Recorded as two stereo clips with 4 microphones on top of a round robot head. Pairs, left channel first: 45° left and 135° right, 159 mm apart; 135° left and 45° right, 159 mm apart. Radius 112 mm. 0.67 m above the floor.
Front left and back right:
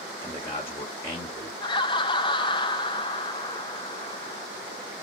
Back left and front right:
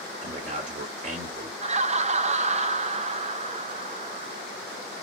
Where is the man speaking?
25° right, 1.5 m.